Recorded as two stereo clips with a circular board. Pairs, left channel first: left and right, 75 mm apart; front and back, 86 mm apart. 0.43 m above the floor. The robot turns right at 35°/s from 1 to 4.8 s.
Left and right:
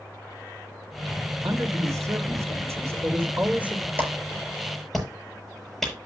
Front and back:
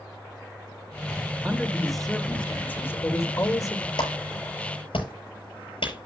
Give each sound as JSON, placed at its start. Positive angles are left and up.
{"t": 1.4, "sound": "a man speaking", "azimuth_deg": -105, "distance_m": 1.9}
{"t": 4.0, "sound": "a clap", "azimuth_deg": -25, "distance_m": 7.5}